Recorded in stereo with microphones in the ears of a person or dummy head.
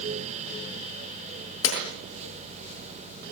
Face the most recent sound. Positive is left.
turn(degrees=85)